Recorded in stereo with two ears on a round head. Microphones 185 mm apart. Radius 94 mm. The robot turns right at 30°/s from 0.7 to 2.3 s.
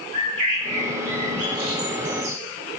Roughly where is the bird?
Right.